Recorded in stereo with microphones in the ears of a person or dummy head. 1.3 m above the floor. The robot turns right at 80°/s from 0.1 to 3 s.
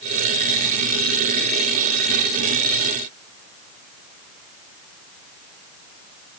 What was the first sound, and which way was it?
Only background noise.